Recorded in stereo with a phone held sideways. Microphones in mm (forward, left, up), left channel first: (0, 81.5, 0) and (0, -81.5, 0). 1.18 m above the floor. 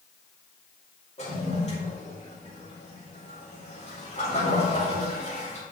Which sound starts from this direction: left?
A toilet flushing, at 1.2 s.